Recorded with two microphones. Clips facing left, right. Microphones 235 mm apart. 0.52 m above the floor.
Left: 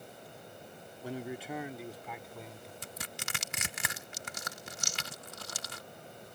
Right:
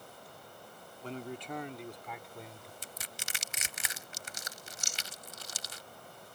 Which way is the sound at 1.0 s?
10° left (ahead or behind).